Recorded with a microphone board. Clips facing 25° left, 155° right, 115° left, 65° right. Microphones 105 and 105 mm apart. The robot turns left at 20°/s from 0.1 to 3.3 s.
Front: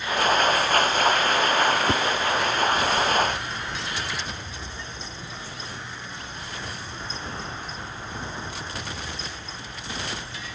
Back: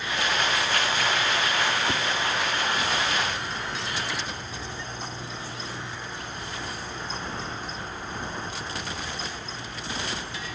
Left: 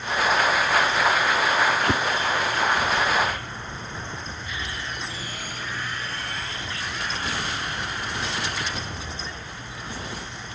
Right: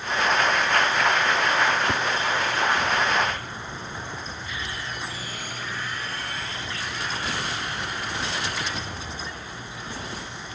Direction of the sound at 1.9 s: 80° left.